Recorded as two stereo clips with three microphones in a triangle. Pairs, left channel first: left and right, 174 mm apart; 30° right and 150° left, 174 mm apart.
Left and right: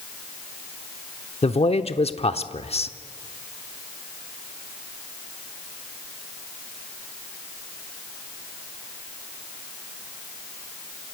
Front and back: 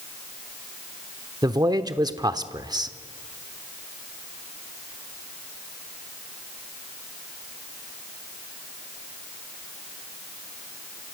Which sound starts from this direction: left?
A man speaking, at 1.4 s.